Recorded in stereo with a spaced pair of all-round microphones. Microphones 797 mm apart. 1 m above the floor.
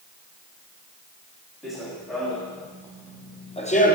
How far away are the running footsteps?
About 4.5 m.